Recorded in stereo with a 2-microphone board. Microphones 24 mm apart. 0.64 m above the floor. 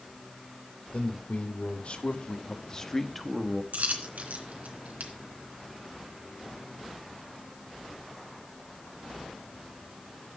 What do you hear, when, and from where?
0.9 s a man speaking: 65° left (ahead or behind), 2.5 m; by 3.6 s 20° right (ahead or behind), 1.2 m
3.7 s a dropped coin: 85° right, 2.5 m